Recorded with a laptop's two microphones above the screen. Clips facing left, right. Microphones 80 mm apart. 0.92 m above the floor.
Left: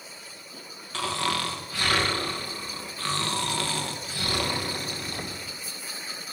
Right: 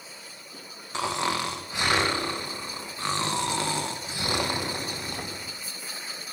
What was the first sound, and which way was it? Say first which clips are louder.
Snoring: right 1 dB; 20° right (ahead or behind).